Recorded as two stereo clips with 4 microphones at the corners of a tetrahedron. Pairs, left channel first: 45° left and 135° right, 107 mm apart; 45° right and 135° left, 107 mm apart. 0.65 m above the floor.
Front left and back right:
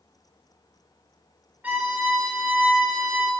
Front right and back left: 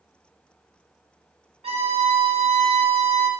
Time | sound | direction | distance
1.6 | a violin | 150° left | 1.3 m